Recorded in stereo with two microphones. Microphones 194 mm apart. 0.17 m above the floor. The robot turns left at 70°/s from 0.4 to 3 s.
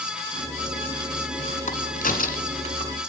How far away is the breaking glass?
No breaking glass in this recording.